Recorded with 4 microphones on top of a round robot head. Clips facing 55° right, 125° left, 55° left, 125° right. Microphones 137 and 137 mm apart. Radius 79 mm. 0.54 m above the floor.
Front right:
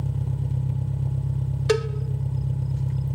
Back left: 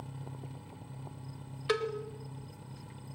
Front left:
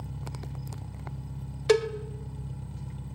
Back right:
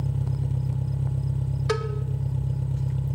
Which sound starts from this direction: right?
An engine running, at 0.0 s.